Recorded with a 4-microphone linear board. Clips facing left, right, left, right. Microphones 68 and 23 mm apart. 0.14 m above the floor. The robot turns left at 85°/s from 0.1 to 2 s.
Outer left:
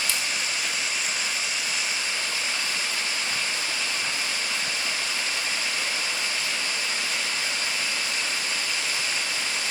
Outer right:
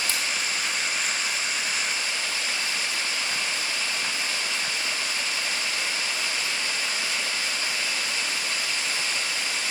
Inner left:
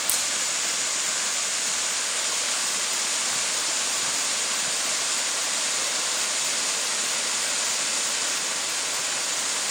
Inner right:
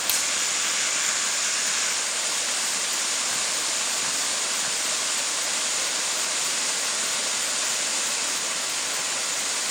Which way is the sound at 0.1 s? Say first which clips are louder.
Even, inner right 3 dB; 45° right (ahead or behind).